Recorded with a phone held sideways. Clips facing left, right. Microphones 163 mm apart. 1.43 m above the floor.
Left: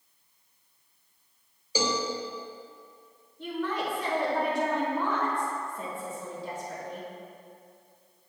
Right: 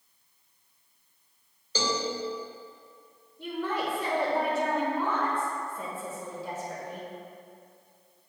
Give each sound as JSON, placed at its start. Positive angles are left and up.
{"t": 1.8, "sound": "a cowbell", "side_deg": 10, "distance_m": 0.7}
{"t": 3.4, "sound": "a woman speaking", "side_deg": -15, "distance_m": 1.4}